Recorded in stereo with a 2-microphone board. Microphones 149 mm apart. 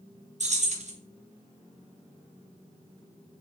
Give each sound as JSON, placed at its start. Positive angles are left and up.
{"t": 0.4, "sound": "keys jangling", "side_deg": -55, "distance_m": 0.6}